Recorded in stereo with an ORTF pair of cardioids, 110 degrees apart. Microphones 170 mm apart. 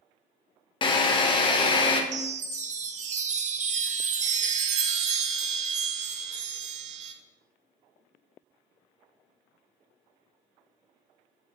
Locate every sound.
0.8 s a drill: 30° left, 0.5 m
2.1 s a chime: 45° right, 0.5 m